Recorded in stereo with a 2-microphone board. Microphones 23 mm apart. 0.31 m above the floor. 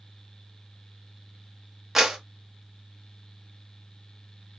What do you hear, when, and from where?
1.9 s a clap: 15° right (ahead or behind), 0.7 m